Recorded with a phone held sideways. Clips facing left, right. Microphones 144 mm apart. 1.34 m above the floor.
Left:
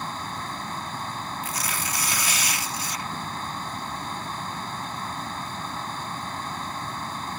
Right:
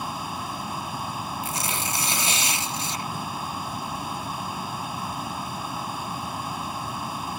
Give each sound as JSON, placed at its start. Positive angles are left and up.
{"t": 0.0, "sound": "a fan", "side_deg": -10}
{"t": 1.4, "sound": "tearing paper", "side_deg": -25}